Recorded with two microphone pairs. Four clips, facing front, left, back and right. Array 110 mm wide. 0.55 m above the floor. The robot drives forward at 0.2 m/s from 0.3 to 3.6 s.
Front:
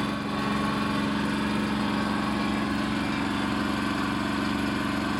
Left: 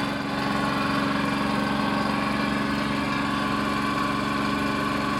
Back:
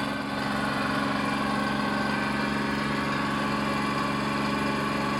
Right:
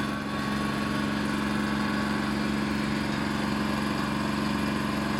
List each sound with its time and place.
0.0 s an engine running: 100° left, 1.8 m; by 5.2 s 120° left, 2 m